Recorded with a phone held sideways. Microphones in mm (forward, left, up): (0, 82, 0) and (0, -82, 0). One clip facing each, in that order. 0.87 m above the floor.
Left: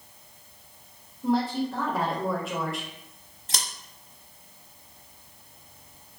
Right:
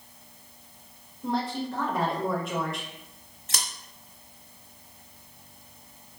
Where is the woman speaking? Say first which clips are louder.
Left 4 dB; centre (ahead or behind), 1.0 m.